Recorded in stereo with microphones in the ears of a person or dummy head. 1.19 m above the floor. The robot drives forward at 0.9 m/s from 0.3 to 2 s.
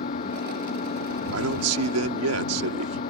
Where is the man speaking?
80° right.